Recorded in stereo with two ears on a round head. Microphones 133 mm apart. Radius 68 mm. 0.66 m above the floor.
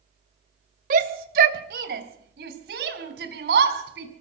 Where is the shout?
60° right (ahead or behind), 2.5 m; by 4.1 s 85° right, 6 m.